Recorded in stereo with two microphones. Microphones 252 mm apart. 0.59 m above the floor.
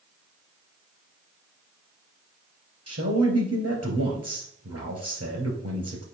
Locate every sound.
2.9 s a man speaking: 70° right (ahead or behind), 2.5 m